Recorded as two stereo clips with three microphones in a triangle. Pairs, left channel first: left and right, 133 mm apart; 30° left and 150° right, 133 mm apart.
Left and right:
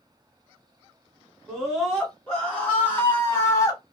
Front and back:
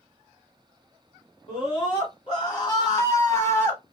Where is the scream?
Straight ahead, 1.7 m; by 3.8 s 80° left, 1.3 m.